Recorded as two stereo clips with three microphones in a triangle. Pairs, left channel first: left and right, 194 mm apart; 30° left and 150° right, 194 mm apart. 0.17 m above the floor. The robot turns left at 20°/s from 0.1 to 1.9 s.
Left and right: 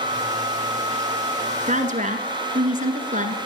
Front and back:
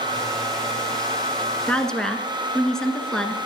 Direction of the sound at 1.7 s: 50° right.